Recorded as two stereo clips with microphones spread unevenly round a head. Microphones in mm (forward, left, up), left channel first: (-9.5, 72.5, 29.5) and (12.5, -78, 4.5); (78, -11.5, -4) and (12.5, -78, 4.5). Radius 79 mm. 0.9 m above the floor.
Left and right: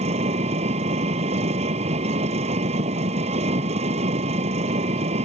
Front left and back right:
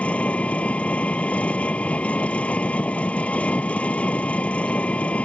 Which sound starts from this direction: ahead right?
An engine running, at 0.0 s.